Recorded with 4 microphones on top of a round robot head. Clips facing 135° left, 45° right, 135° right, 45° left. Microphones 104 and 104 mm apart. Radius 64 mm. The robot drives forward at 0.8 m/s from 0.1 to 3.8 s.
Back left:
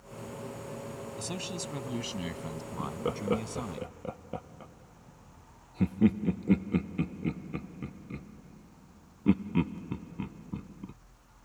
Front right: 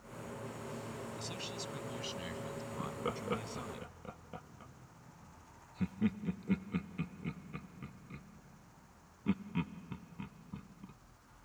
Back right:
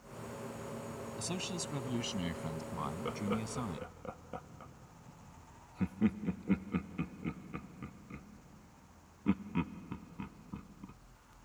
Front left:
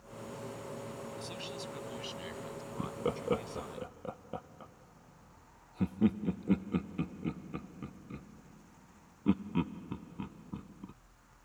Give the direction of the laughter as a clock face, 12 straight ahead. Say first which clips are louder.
Back left 7 dB, front left 5 dB; 10 o'clock.